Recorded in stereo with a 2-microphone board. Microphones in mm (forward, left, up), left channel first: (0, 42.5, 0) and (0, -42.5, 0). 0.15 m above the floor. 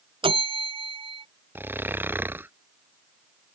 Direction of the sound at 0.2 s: 85° right.